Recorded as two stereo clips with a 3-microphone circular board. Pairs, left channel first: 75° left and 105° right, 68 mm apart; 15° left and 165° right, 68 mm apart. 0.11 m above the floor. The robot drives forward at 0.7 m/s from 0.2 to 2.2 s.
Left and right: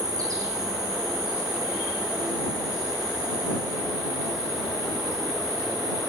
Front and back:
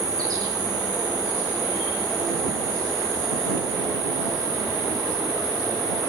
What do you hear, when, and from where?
0.0 s an insect: 140° right, 0.8 m; by 6.1 s 165° right, 2 m